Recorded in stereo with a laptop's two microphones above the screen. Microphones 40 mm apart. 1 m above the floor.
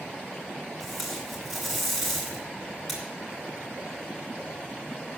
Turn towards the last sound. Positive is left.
turn(degrees=5)  # may be behind; listen again after turning